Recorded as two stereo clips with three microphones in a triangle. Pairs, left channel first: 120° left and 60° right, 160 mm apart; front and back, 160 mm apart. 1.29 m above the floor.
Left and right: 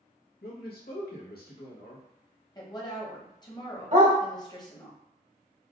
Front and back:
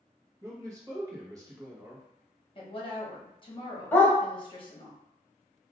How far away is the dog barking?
About 1.5 m.